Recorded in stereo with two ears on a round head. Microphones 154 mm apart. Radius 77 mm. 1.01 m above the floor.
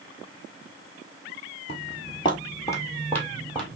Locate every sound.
1.7 s footsteps: 35° left (ahead or behind), 1.3 m; by 3.8 s 5° left (ahead or behind), 1.8 m